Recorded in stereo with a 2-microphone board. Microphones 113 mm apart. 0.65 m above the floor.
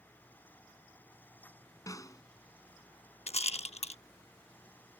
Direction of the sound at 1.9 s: 30° left (ahead or behind).